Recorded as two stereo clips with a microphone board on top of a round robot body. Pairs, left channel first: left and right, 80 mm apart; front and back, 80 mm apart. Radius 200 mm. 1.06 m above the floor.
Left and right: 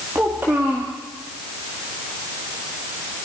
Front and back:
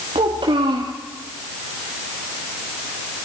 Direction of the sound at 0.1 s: 160° right.